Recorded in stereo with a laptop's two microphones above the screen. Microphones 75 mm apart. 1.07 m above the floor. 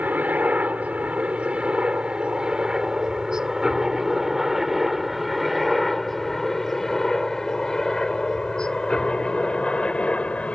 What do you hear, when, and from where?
0.0 s a helicopter: 20° right (ahead or behind); by 10.6 s 15° left (ahead or behind)